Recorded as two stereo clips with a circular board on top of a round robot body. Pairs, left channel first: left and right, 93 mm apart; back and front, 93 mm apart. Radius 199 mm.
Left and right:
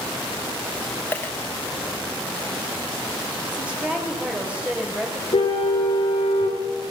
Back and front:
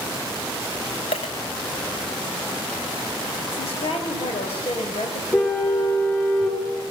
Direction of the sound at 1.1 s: 160° left.